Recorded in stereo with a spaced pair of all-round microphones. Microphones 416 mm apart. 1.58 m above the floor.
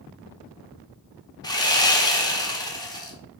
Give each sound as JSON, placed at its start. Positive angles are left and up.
{"t": 1.4, "sound": "sawing", "side_deg": 10, "distance_m": 0.8}